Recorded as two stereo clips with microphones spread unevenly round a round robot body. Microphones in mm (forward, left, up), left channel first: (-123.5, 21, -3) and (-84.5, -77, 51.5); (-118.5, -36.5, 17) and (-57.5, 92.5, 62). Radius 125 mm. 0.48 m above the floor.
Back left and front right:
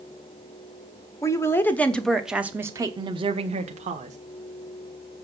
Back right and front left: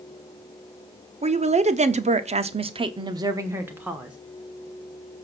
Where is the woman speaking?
115° left, 1.2 m; by 4.2 s 30° right, 1.3 m.